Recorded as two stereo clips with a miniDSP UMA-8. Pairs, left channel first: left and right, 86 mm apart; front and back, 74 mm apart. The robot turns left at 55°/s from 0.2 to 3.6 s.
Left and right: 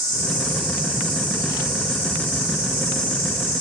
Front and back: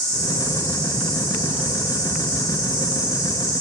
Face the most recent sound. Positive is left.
turn(degrees=140)